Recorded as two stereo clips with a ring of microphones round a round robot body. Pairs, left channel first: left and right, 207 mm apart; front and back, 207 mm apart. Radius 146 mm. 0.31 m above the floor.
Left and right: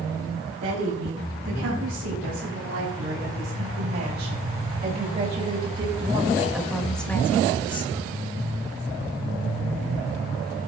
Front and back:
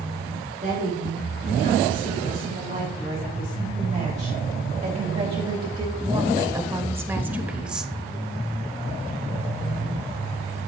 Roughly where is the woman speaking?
Behind right.